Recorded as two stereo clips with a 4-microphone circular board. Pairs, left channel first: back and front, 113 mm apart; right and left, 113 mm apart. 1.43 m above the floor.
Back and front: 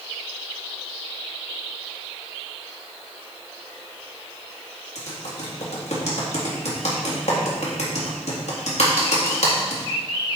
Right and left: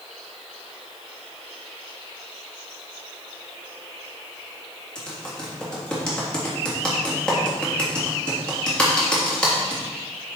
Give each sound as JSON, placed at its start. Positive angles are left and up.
{"t": 5.0, "sound": "typing on a keyboard", "azimuth_deg": -170, "distance_m": 1.8}